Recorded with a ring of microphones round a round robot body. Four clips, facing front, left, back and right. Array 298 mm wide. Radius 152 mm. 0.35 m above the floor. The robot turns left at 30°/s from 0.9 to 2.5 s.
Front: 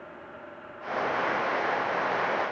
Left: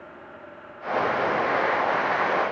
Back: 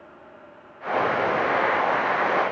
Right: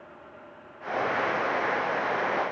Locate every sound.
Only background noise.